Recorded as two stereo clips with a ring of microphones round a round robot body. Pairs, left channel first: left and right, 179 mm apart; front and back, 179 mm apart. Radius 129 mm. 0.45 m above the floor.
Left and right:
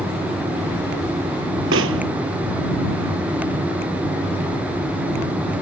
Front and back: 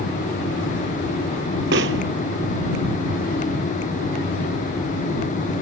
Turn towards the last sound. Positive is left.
turn(degrees=-130)